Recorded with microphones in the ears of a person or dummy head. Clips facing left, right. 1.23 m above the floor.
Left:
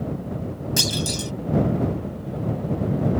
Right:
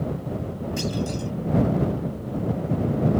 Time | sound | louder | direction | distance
0.8 | a clunk | right 1 dB | 80° left | ?